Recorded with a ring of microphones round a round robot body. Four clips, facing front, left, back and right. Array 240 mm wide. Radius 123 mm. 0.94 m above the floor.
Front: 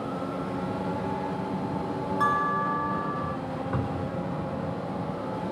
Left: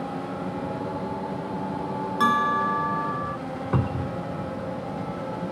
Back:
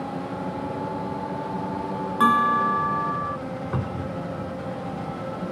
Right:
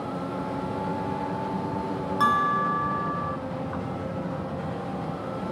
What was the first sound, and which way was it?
A bell, 170° left.